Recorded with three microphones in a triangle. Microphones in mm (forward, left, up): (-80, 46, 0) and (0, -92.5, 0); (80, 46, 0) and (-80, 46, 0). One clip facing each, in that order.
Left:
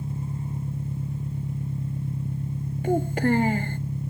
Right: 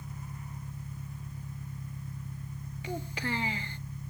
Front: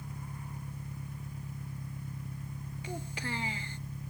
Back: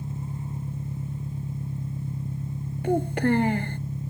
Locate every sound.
0.0 s an engine running: 120° left
2.8 s a child speaking: 155° left